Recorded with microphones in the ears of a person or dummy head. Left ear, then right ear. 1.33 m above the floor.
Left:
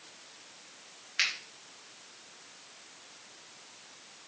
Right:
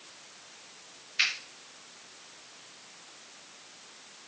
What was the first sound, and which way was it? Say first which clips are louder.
A finger snap: right 2 dB; 20° left (ahead or behind).